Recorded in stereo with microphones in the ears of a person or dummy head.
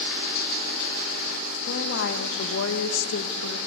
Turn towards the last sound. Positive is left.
turn(degrees=90)